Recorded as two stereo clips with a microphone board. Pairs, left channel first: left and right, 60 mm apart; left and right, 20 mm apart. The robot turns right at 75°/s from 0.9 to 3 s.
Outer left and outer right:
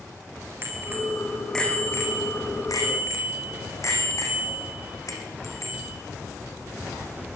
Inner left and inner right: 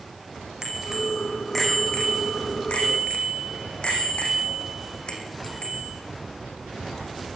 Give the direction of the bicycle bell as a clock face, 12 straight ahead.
1 o'clock.